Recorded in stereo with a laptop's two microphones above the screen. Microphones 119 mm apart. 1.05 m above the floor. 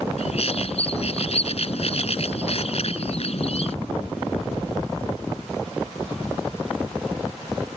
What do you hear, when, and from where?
0.2 s a bird: 55° left (ahead or behind)